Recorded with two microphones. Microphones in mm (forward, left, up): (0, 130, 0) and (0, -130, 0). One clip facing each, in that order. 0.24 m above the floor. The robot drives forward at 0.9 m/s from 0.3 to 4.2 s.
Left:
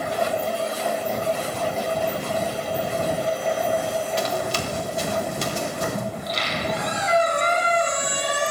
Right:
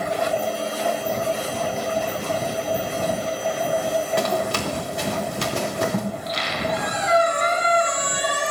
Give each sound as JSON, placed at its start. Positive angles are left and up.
{"t": 4.2, "sound": "running footsteps", "side_deg": -60, "distance_m": 3.0}
{"t": 6.1, "sound": "a squeak", "side_deg": 35, "distance_m": 4.0}